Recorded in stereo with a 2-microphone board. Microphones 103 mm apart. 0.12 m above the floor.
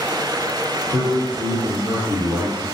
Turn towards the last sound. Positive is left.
turn(degrees=-20)  # may be behind; listen again after turning